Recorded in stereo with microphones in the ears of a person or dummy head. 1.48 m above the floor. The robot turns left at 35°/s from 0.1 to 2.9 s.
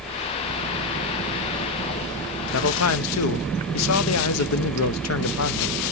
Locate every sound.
2.5 s a man speaking: 65° left (ahead or behind), 1.0 m; by 5.9 s 75° left (ahead or behind), 1.0 m